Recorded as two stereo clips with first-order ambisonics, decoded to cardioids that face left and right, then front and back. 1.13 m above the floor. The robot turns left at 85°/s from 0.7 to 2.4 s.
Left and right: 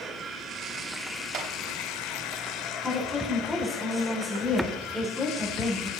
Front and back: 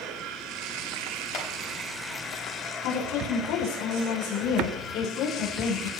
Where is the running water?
155° right, 3.5 m; by 6.0 s 65° left, 3.5 m.